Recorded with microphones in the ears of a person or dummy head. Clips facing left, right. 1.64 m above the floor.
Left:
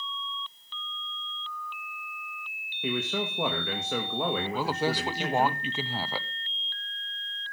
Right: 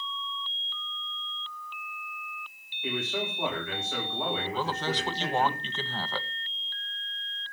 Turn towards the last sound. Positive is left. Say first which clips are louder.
# left 3 dB
turn(degrees=10)  # may be behind; listen again after turning